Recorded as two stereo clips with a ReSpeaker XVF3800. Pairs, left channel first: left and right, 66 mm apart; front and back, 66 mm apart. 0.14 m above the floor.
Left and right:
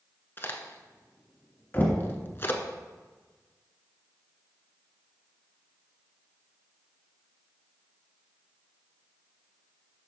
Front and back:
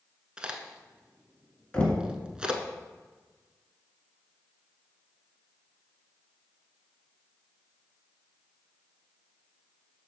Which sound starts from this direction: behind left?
A crack, at 0.4 s.